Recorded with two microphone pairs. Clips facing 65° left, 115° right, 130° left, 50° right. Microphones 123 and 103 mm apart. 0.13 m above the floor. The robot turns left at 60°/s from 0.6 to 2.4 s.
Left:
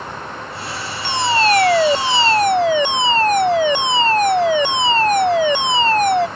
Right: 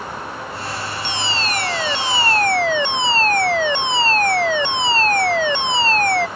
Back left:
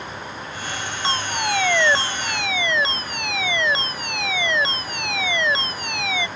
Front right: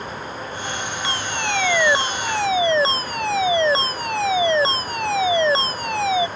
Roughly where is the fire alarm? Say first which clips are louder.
Left 12 dB, back left 3 dB; left.